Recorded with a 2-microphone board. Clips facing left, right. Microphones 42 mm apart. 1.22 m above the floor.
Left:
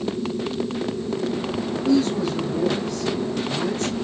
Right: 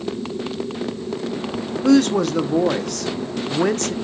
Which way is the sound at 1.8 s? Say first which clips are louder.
Right 5 dB; 70° right (ahead or behind).